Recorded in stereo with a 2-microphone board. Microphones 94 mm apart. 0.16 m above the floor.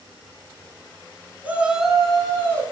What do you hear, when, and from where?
1.4 s a shout: 20° right (ahead or behind), 1.0 m; by 2.6 s 20° left (ahead or behind), 1.2 m